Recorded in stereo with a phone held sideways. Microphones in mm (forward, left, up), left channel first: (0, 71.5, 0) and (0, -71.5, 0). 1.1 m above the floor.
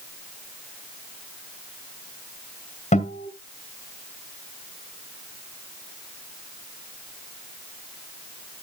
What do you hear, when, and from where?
2.9 s a guitar: 55° left (ahead or behind), 2 m